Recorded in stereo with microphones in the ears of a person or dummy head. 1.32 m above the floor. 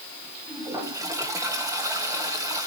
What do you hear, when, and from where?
0.5 s a toilet flushing: 15° right (ahead or behind), 2 m